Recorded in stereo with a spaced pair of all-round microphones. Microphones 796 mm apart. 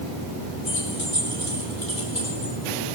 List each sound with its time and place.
0.7 s keys jangling: 60° left (ahead or behind), 6 m; by 2.5 s 45° left (ahead or behind), 5.5 m